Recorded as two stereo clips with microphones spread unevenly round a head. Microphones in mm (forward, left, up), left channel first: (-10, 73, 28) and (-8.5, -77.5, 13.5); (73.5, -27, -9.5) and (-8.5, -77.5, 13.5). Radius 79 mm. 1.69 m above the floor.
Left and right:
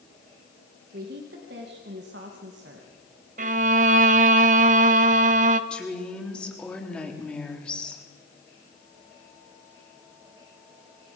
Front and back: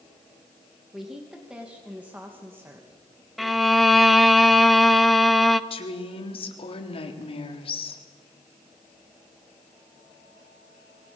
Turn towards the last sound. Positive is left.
turn(degrees=5)